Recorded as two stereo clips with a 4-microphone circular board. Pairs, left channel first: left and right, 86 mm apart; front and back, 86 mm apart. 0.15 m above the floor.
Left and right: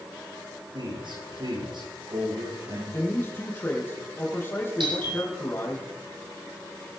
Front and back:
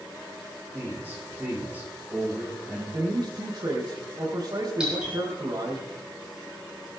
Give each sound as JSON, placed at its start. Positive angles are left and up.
{"t": 0.7, "sound": "a man speaking", "azimuth_deg": -110, "distance_m": 9.0}
{"t": 2.9, "sound": "a man speaking", "azimuth_deg": 150, "distance_m": 5.0}
{"t": 4.8, "sound": "a doorbell", "azimuth_deg": -100, "distance_m": 8.0}